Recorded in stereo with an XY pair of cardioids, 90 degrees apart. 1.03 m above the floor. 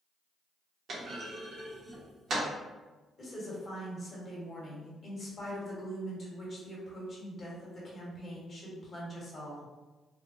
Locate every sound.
0.9 s a clunk: 65° right, 1.1 m
3.2 s a woman speaking: 45° left, 1.5 m